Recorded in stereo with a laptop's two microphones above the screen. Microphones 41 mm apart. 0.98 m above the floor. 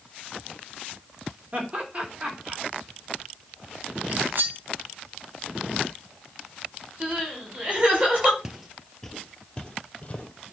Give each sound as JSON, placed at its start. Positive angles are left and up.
{"t": 1.5, "sound": "laughter", "side_deg": -30, "distance_m": 3.0}
{"t": 4.1, "sound": "cutlery clinking", "side_deg": -50, "distance_m": 1.6}
{"t": 7.0, "sound": "crying", "side_deg": -30, "distance_m": 4.5}
{"t": 8.4, "sound": "footsteps", "side_deg": -10, "distance_m": 1.0}